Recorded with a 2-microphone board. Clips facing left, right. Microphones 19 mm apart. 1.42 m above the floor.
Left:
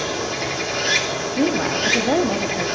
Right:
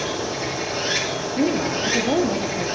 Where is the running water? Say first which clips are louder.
Left 1 dB; 75° left (ahead or behind), 3.5 m.